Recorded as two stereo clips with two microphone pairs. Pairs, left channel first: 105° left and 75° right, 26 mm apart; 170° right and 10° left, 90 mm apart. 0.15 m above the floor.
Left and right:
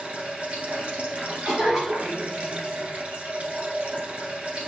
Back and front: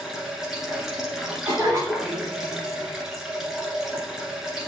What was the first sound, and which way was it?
Running water, 75° right.